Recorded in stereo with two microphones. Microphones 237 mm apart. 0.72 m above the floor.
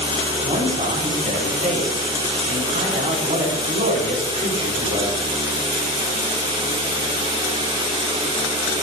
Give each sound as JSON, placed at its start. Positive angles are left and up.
{"t": 0.4, "sound": "a man speaking", "side_deg": -35, "distance_m": 4.0}